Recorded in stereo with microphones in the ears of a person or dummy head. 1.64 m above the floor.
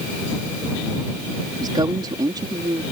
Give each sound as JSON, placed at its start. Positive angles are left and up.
{"t": 1.6, "sound": "a woman speaking", "side_deg": -30}